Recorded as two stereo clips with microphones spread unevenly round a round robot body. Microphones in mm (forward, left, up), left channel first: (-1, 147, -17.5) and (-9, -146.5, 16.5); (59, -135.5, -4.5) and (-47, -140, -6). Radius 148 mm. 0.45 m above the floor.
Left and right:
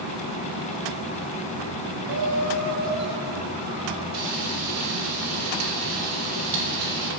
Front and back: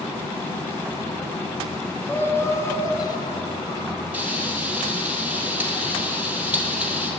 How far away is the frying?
About 2.5 m.